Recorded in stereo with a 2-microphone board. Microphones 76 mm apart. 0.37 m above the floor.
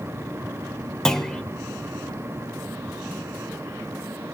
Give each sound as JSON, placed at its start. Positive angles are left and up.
{"t": 1.1, "sound": "a clunk", "side_deg": 5, "distance_m": 0.7}